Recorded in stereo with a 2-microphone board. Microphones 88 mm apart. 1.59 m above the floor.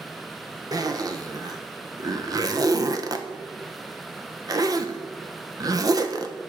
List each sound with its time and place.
0.7 s a zipper: 45° right (ahead or behind), 0.7 m